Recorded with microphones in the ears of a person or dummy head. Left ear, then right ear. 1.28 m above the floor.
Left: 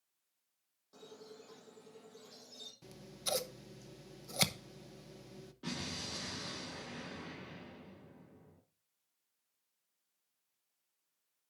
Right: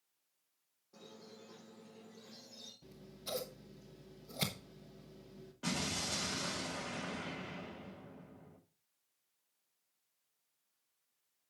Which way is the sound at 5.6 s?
35° right (ahead or behind).